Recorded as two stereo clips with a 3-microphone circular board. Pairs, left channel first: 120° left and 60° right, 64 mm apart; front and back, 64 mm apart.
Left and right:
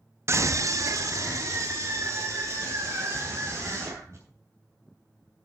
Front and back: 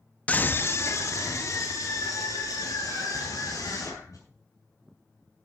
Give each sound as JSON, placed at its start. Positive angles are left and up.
{"t": 0.3, "sound": "a scream", "azimuth_deg": -60, "distance_m": 0.5}